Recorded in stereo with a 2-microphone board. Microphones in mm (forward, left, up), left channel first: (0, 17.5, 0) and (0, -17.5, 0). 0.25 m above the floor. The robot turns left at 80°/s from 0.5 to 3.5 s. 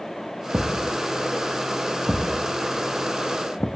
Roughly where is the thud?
Right.